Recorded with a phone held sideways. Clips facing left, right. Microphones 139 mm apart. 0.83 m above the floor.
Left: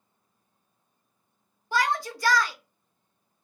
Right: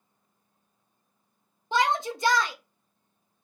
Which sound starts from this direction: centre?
A shout, at 1.7 s.